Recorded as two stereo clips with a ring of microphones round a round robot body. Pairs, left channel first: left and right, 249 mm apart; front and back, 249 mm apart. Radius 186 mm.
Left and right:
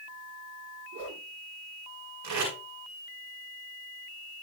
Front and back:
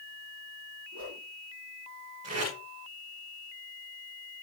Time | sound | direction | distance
0.9 | a whoosh | 130° right | 7 m
2.2 | tape being pulled | 110° right | 8.5 m